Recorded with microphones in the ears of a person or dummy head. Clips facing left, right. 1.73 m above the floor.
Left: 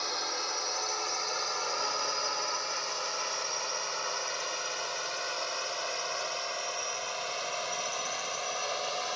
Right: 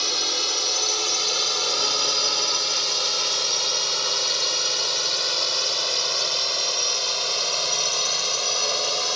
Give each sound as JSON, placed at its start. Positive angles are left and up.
{"t": 0.0, "sound": "a drone", "side_deg": -50}